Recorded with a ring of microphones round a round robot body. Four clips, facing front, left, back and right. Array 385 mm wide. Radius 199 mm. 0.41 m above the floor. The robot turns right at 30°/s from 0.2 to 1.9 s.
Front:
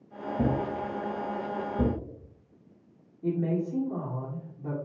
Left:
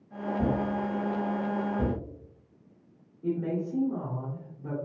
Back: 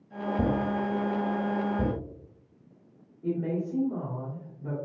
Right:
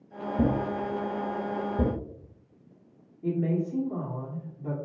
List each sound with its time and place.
0.4 s a thud: 120° right, 1.1 m; by 2.0 s 70° right, 1.1 m
3.2 s a woman speaking: 30° right, 1.5 m